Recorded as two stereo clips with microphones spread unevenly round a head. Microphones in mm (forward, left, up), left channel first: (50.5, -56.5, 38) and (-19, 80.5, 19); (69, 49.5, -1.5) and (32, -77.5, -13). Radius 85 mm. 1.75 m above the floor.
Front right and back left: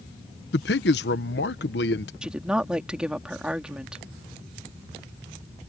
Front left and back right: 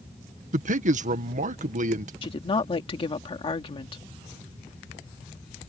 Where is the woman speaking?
30° left.